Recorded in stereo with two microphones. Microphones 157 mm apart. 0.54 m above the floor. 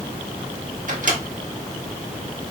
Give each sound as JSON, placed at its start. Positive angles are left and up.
{"t": 0.9, "sound": "a microwave", "side_deg": -55, "distance_m": 0.8}